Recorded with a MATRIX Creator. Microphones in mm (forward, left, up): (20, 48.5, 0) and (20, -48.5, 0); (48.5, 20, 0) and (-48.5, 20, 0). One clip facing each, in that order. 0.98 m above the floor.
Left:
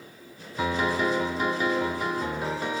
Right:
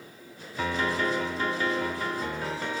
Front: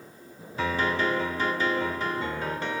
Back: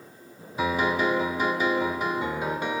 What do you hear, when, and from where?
0.6 s a piano: 130° left